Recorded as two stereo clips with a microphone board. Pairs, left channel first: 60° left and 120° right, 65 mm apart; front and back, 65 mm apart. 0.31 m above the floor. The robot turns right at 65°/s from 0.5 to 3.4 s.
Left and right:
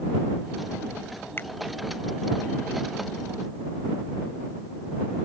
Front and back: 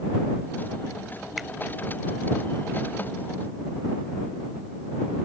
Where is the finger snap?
90° left; by 1.5 s 95° left.